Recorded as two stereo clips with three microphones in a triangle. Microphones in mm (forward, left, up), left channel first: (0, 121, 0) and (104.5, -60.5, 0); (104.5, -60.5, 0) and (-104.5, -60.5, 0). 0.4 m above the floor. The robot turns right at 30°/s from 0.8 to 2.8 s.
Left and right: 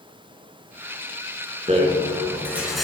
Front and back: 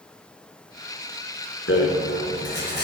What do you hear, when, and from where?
1.7 s a rattle: 5° right, 3.5 m; by 2.9 s 30° left, 3.5 m